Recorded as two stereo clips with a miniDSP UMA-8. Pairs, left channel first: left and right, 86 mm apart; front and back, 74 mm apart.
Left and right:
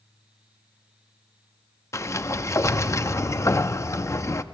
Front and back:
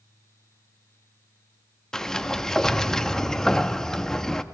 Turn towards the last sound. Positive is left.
turn(degrees=80)